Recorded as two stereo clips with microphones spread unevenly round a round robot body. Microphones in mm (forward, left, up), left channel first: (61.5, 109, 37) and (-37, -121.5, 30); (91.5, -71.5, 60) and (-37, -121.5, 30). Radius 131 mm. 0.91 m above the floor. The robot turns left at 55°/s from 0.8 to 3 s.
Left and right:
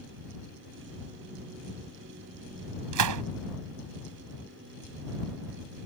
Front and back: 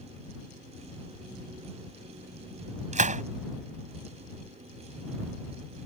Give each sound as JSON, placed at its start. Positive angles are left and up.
{"t": 2.9, "sound": "a gunshot", "azimuth_deg": -125}